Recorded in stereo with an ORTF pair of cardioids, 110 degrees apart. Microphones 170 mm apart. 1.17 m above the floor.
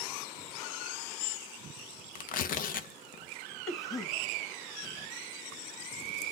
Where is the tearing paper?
55° left, 0.7 m.